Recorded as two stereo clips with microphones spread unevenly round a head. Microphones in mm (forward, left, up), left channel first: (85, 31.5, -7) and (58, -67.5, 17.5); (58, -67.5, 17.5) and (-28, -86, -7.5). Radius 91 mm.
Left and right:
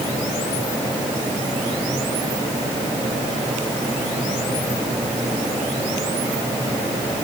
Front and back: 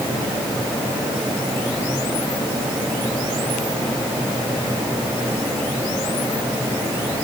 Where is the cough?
No cough in this recording.